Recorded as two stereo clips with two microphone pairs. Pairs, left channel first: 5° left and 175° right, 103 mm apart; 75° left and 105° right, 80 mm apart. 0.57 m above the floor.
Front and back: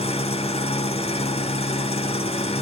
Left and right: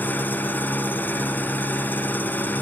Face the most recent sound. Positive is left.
turn(degrees=5)